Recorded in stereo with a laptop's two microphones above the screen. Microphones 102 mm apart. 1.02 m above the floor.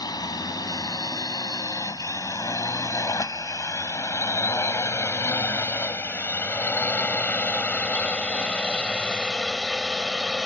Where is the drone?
40° left (ahead or behind); by 10.5 s 5° left (ahead or behind).